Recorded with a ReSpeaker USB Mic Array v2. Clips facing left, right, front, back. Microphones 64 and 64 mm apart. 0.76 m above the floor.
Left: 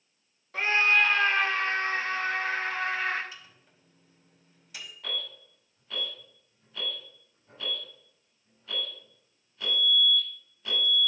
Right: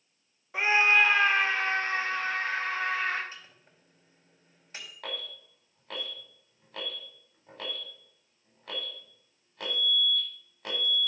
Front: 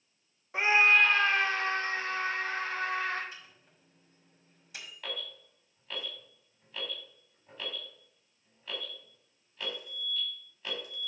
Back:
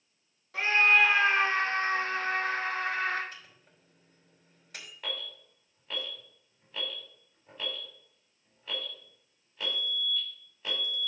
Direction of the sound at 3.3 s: 145° right.